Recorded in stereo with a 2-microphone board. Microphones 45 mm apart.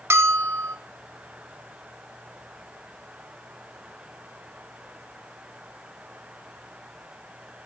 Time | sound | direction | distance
0.1 | a bell | 60° right (ahead or behind) | 0.7 m